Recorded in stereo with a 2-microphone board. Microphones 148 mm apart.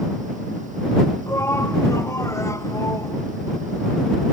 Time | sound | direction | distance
1.3 | a shout | 15° left (ahead or behind) | ?